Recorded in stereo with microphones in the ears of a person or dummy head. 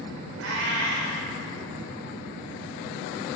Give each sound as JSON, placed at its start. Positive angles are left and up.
{"t": 0.4, "sound": "a cat meowing", "side_deg": -70, "distance_m": 1.9}